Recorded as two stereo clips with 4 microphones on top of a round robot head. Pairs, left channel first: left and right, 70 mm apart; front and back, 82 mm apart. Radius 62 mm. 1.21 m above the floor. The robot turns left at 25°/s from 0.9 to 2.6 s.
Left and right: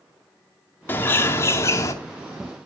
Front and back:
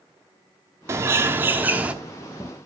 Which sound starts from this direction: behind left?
A bird, at 0.9 s.